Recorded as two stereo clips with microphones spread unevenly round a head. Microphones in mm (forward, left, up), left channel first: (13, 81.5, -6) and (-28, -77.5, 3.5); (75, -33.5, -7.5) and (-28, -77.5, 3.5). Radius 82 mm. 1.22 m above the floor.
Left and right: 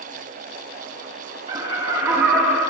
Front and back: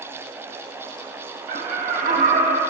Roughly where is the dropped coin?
I don't hear a dropped coin.